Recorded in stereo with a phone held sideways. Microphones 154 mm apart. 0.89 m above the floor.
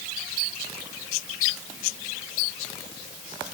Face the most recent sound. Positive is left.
No sound to turn to.